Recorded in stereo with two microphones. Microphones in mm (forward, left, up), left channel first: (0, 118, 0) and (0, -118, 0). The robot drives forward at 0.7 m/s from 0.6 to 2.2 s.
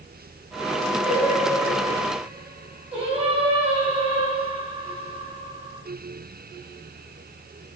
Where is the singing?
25° right (ahead or behind), 8 m.